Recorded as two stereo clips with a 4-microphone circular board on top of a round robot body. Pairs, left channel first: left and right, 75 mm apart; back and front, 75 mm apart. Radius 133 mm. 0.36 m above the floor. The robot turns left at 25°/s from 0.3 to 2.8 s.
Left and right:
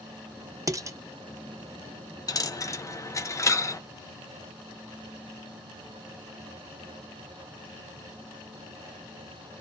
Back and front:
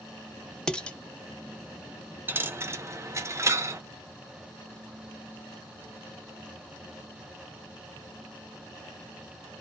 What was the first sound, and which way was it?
Dishes clattering, 105° right.